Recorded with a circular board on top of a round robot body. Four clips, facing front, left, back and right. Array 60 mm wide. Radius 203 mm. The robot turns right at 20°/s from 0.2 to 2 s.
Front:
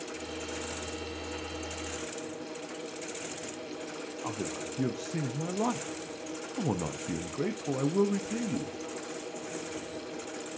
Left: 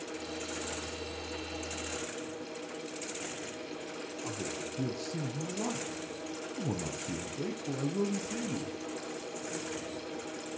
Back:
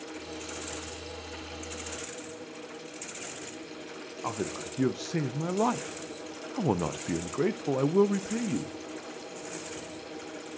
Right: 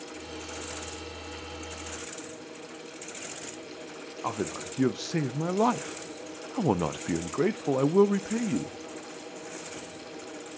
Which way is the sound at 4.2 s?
115° right.